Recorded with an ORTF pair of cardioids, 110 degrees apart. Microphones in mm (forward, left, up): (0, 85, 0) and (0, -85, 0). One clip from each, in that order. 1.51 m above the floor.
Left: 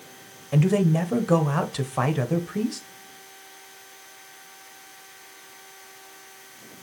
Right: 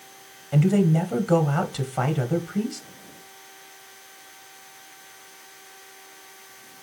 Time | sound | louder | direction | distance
0.5 | a man speaking | even | 10° left | 0.9 m